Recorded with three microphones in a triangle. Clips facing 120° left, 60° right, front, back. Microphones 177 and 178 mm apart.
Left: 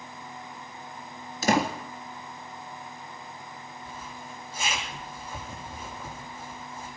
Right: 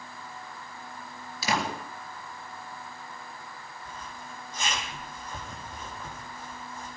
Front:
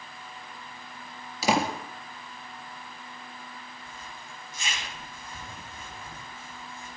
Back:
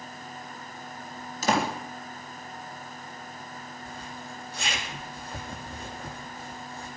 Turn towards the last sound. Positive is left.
turn(degrees=-160)